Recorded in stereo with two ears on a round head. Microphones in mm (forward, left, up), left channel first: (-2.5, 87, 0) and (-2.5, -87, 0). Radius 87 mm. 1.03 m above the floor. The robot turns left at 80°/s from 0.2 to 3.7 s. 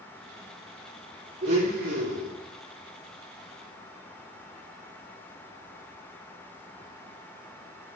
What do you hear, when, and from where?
1.4 s a blender: 30° right, 5.5 m; by 2.3 s 100° right, 5.5 m